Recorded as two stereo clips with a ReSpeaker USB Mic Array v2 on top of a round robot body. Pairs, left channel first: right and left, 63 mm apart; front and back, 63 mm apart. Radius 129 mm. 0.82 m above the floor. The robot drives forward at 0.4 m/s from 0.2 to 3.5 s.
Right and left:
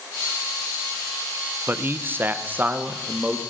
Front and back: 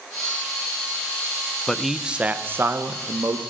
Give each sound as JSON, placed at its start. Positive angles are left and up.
{"t": 1.7, "sound": "a man speaking", "azimuth_deg": 75, "distance_m": 0.6}